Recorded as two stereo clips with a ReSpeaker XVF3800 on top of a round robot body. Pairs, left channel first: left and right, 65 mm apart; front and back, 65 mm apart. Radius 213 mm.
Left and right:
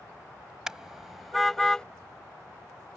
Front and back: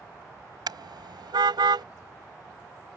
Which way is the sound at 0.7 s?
170° right.